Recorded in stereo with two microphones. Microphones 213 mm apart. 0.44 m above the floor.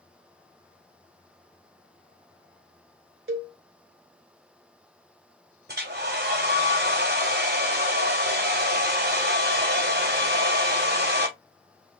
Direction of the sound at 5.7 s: 45° right (ahead or behind).